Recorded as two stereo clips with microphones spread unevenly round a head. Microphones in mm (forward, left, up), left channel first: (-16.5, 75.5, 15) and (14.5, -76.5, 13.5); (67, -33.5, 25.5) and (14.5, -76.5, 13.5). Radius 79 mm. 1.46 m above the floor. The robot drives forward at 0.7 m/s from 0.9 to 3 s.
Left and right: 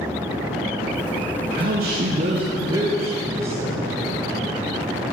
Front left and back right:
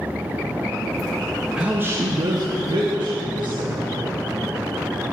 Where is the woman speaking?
60° right, 0.6 m; by 3.8 s 155° right, 0.9 m.